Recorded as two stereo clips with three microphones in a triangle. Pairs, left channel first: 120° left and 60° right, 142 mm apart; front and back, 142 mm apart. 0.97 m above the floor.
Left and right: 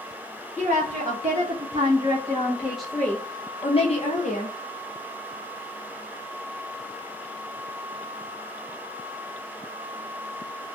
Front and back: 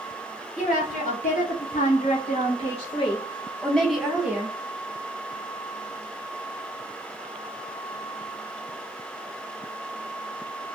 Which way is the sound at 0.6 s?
20° right.